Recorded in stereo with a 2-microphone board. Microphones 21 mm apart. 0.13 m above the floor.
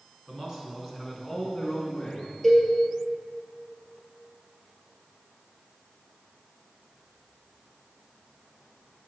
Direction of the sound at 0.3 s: 30° right (ahead or behind).